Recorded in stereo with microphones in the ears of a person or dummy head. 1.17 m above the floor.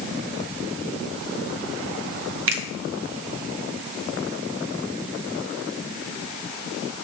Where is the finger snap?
60° right (ahead or behind), 0.6 m.